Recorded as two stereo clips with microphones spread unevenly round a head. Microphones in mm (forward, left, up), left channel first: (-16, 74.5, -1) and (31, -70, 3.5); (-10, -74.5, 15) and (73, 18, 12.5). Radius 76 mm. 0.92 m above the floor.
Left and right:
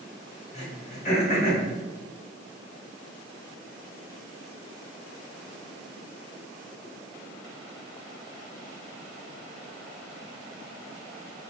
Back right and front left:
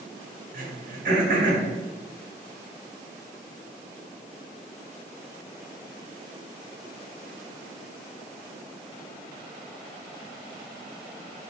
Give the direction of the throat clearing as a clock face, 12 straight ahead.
10 o'clock.